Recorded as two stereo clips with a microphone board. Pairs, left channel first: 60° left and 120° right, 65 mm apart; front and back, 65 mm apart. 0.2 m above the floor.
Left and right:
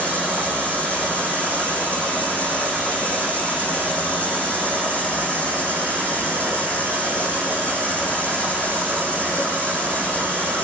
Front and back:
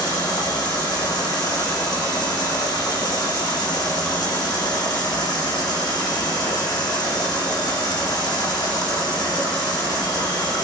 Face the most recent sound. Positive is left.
turn(degrees=-5)